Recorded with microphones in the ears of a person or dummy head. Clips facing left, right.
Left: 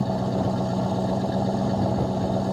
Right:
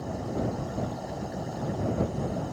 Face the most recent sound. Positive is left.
turn(degrees=80)